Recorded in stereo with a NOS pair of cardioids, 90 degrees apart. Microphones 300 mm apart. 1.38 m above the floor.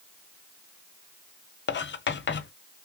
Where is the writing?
35° left, 0.9 m.